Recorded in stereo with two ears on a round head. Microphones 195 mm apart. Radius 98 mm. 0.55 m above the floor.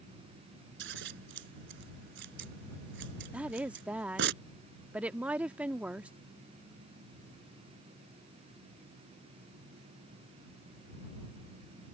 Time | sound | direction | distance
0.8 | scissors | 55° right (ahead or behind) | ?
3.3 | a woman speaking | 5° right (ahead or behind) | ?